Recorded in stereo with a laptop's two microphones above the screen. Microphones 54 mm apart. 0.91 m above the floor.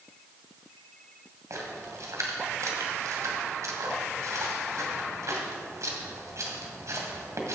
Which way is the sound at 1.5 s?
70° right (ahead or behind).